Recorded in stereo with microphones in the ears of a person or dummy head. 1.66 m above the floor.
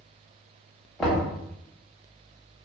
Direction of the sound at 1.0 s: Centre (ahead or behind).